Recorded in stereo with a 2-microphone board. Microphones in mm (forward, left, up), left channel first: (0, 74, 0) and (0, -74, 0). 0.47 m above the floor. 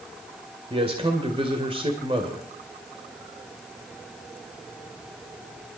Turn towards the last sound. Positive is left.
turn(degrees=-35)  # may be behind; listen again after turning